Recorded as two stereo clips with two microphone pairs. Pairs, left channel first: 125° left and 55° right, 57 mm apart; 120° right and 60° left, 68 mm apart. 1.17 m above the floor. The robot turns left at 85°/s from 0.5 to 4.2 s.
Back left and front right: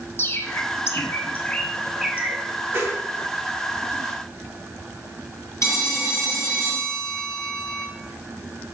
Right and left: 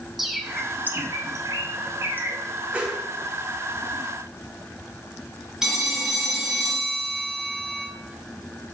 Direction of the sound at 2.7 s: 10° right.